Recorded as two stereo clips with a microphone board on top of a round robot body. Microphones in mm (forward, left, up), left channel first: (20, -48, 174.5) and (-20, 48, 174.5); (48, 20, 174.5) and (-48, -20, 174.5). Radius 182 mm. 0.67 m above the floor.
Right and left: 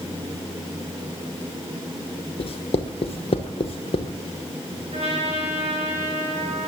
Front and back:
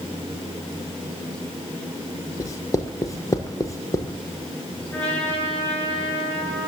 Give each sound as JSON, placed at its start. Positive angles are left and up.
{"t": 2.4, "sound": "writing", "azimuth_deg": -40, "distance_m": 0.9}
{"t": 4.9, "sound": "a trumpet", "azimuth_deg": 95, "distance_m": 6.5}